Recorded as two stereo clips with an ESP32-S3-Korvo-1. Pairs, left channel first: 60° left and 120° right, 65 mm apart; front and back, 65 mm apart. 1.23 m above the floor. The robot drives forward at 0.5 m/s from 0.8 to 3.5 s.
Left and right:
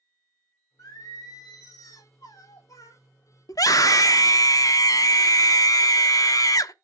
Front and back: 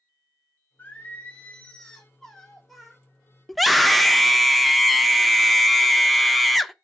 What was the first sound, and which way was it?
Singing, 65° left.